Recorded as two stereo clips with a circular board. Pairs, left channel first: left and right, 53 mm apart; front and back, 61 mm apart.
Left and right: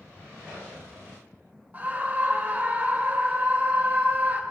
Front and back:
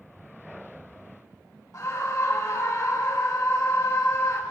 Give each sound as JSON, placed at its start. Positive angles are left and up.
{"t": 1.7, "sound": "a scream", "azimuth_deg": -35, "distance_m": 1.4}